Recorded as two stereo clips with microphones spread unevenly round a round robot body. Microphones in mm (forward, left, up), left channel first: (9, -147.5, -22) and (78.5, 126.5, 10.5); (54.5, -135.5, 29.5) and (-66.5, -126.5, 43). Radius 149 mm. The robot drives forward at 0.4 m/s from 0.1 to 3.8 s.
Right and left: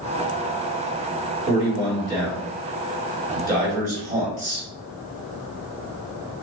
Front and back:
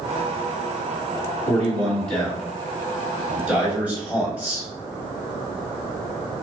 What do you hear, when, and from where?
1.5 s a man speaking: 40° left, 1.8 m; by 4.7 s 105° left, 1.6 m